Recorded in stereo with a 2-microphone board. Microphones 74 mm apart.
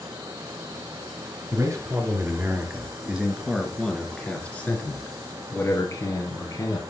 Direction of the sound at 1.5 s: 40° right (ahead or behind).